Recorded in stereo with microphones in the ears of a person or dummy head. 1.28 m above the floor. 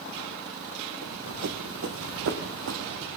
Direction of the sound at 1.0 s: 65° right (ahead or behind).